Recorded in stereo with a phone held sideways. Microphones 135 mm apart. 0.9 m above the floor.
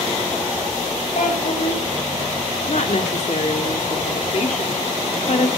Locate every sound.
1.1 s a child speaking: 75° left (ahead or behind), 4.5 m
2.7 s a woman speaking: 60° left (ahead or behind), 1.8 m